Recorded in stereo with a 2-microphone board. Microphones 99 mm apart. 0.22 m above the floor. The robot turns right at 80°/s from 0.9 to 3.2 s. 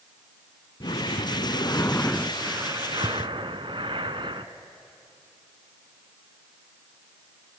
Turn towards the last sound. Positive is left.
turn(degrees=-105)